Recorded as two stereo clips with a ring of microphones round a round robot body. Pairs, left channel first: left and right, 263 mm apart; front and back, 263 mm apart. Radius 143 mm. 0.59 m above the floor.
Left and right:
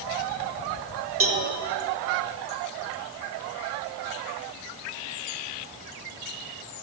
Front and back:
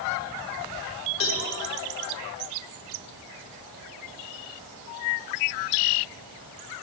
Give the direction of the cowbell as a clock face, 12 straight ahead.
2 o'clock.